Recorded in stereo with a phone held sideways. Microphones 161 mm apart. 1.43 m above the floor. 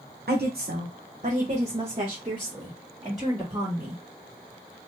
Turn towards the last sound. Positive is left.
turn(degrees=-20)  # may be behind; listen again after turning